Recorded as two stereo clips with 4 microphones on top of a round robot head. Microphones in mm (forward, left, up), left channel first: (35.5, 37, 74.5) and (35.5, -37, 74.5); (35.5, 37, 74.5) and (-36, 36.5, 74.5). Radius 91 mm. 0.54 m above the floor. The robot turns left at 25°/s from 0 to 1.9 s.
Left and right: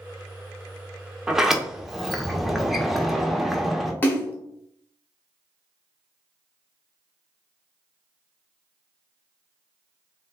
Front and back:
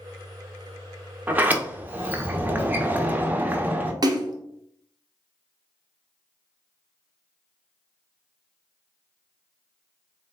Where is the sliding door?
160° right, 0.6 m; by 3.9 s 175° right, 0.6 m.